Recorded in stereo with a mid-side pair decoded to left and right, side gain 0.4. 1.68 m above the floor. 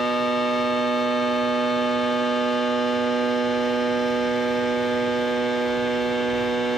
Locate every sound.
0.0 s a machine running: 20° right, 1.1 m